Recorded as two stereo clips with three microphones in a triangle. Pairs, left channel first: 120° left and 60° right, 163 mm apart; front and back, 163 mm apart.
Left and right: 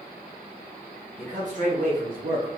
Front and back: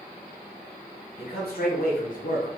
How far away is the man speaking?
About 1.9 m.